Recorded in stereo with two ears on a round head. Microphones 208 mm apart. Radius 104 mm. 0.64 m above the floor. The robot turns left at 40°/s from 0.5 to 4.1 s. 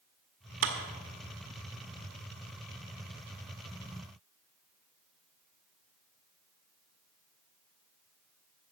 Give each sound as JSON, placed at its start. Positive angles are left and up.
{"t": 0.6, "sound": "a clap", "side_deg": -65, "distance_m": 1.8}